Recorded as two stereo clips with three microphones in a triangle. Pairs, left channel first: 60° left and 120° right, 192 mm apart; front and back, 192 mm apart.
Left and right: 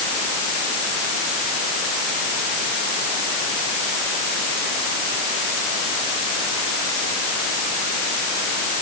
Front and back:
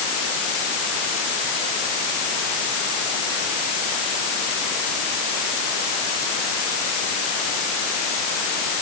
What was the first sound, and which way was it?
Only background noise.